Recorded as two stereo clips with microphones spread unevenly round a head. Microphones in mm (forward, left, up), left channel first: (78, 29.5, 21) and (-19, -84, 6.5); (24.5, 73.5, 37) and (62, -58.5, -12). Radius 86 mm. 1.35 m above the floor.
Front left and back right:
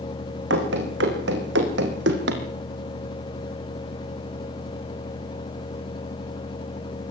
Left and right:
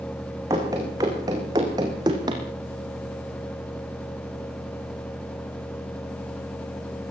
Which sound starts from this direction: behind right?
Running footsteps, at 0.5 s.